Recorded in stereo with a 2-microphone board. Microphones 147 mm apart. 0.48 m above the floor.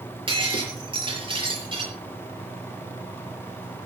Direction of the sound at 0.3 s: 35° right (ahead or behind).